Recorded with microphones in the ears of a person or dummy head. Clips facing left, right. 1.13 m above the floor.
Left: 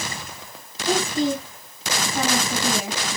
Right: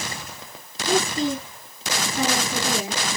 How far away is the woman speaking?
About 8 m.